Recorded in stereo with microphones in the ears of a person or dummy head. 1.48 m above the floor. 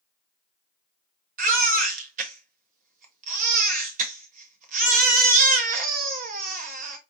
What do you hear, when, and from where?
1.4 s a baby crying: 40° right (ahead or behind), 1.1 m